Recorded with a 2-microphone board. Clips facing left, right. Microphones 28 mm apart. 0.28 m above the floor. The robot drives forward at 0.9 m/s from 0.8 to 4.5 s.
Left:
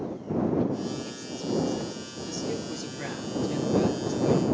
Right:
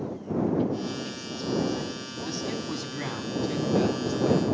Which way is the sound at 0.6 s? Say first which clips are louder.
Even; 45° right (ahead or behind).